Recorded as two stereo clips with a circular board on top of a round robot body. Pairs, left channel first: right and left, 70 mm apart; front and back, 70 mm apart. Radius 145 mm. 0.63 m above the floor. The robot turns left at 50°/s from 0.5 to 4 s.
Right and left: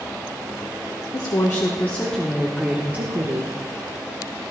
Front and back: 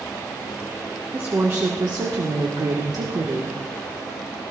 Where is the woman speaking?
115° right, 1.6 m; by 3.5 s 125° left, 1.6 m.